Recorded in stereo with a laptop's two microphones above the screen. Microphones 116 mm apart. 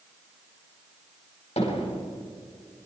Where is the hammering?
55° left (ahead or behind), 5 m.